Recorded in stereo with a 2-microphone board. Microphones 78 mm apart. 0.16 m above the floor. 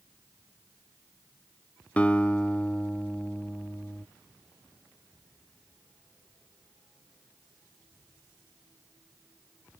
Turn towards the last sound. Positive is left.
turn(degrees=20)  # may be behind; listen again after turning